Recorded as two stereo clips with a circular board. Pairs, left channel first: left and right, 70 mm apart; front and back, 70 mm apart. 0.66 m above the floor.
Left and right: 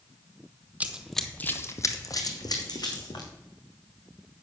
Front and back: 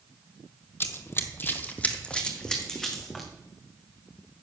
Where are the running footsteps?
35° right, 0.8 m; by 3.3 s 85° left, 2 m.